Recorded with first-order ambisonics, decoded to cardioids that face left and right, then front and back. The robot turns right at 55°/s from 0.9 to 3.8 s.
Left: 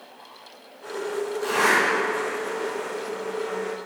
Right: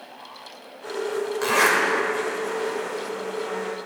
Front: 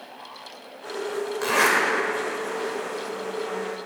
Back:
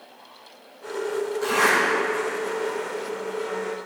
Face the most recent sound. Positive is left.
turn(degrees=75)